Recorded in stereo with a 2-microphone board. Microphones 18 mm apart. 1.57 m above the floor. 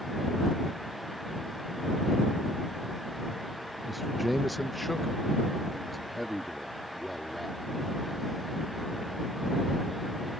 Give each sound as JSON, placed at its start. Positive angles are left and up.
{"t": 3.9, "sound": "a man speaking", "side_deg": -5}